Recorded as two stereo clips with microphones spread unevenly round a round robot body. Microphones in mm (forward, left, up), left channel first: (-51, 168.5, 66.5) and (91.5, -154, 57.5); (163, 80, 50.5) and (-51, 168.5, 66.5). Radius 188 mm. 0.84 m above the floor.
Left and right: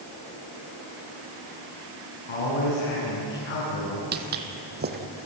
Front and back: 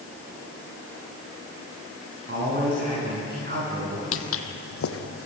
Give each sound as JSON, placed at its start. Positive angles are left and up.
{"t": 2.3, "sound": "a man speaking", "azimuth_deg": 115, "distance_m": 8.5}
{"t": 4.1, "sound": "footsteps", "azimuth_deg": -5, "distance_m": 1.5}